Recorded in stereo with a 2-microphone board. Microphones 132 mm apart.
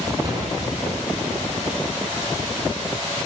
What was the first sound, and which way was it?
A door slam, 30° right (ahead or behind).